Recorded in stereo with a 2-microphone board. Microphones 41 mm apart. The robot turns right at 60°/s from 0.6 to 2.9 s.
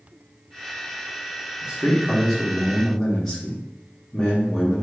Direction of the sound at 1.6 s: 25° right (ahead or behind).